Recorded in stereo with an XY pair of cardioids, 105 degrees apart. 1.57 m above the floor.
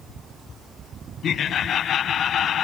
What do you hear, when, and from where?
1.2 s laughter: 60° left, 1.1 m